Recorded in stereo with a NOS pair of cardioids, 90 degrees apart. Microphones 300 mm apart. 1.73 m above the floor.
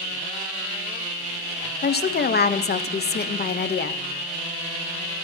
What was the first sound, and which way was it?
A woman speaking, 30° left.